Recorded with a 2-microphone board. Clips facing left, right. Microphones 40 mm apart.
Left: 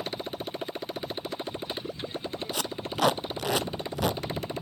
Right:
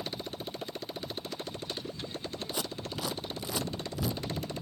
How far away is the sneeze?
I don't hear a sneeze.